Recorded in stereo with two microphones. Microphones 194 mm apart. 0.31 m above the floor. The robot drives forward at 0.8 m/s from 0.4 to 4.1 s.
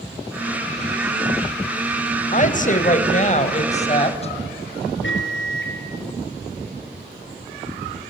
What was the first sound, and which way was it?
A woman speaking, 40° left (ahead or behind).